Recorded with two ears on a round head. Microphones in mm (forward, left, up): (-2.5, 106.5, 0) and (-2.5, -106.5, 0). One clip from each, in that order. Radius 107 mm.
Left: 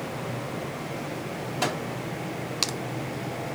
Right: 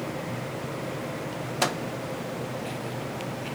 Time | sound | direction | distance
1.6 | a microwave | 25° right (ahead or behind) | 0.7 m